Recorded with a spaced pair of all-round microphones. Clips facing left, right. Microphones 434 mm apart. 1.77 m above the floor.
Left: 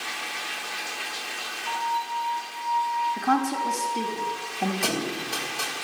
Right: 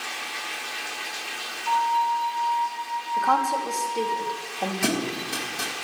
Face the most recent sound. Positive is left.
turn(degrees=-35)  # may be behind; listen again after turning